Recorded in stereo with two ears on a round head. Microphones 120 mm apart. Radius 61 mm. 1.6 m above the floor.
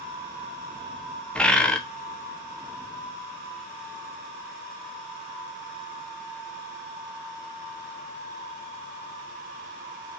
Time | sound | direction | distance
1.4 | a bird | 5° left (ahead or behind) | 0.8 m